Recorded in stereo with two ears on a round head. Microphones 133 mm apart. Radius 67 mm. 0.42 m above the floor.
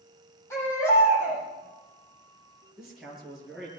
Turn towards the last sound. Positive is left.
turn(degrees=-5)  # may be behind; listen again after turning